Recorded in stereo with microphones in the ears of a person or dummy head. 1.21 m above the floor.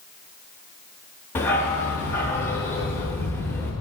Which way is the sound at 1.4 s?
15° left (ahead or behind).